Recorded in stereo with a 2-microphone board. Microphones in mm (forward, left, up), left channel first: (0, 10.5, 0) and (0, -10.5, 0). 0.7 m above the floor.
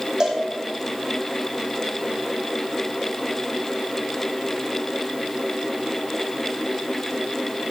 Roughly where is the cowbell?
Right.